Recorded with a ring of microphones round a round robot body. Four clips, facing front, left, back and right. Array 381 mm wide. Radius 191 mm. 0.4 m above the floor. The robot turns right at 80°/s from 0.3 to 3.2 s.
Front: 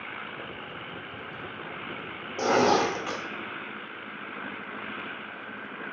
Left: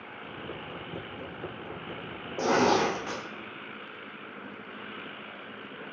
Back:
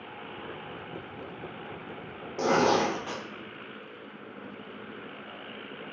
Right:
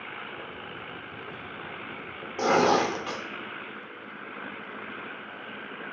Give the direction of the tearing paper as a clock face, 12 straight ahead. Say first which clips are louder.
Right 2 dB, front 1 dB; 3 o'clock.